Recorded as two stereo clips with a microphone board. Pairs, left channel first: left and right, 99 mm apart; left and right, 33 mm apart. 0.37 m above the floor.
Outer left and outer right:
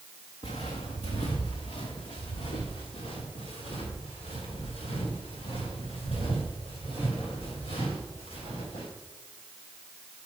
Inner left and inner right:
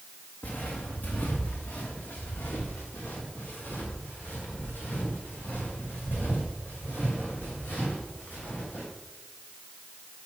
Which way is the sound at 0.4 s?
80° left.